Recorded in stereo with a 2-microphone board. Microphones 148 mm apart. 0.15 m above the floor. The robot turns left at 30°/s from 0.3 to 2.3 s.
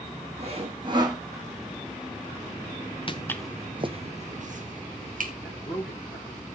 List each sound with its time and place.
0.4 s sawing: 50° right (ahead or behind), 2.5 m; by 1.2 s 25° right (ahead or behind), 2.5 m
3.1 s footsteps: 35° left (ahead or behind), 0.8 m; by 5.3 s 70° right (ahead or behind), 3 m
5.4 s a man speaking: 15° left (ahead or behind), 7.5 m